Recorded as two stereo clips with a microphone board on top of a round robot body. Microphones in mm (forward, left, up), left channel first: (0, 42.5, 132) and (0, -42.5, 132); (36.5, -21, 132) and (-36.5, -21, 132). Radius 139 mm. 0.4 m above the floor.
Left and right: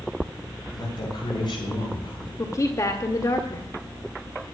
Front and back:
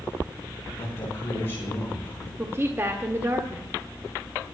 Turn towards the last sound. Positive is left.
turn(degrees=130)